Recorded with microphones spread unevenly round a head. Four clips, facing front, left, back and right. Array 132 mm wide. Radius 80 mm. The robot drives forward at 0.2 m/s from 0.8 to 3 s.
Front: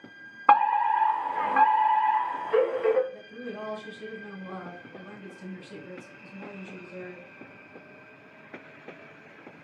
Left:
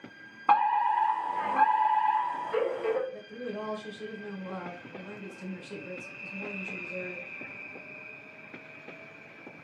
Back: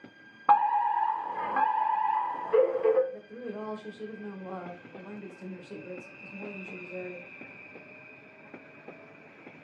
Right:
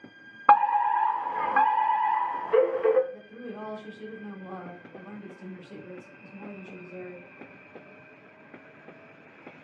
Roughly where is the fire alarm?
Ahead right.